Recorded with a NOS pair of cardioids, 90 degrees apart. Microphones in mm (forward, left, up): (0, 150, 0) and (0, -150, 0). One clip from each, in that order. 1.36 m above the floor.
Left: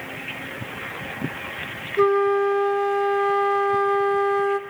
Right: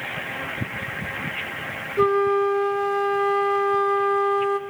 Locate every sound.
2.0 s a flute: 5° left, 0.7 m